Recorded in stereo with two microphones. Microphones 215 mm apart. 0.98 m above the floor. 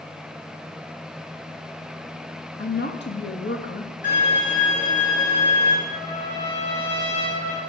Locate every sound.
2.6 s a woman speaking: 55° left (ahead or behind), 1.3 m
4.0 s a violin: 45° left (ahead or behind), 5 m
5.9 s a trumpet: 10° left (ahead or behind), 3 m